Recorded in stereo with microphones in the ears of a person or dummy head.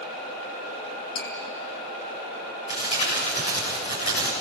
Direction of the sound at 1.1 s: 55° left (ahead or behind).